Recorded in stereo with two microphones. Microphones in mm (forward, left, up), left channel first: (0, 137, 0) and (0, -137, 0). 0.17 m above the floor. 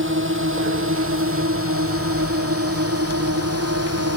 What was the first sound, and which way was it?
A drone, 45° right (ahead or behind).